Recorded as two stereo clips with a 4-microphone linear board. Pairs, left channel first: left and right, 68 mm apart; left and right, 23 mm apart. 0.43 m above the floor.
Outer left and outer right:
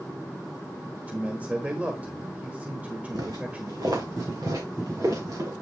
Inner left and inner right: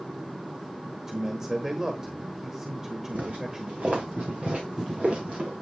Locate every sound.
1.1 s a man speaking: 20° right (ahead or behind), 1.4 m
3.1 s footsteps: 70° right (ahead or behind), 1.9 m; by 5.5 s 55° right (ahead or behind), 4 m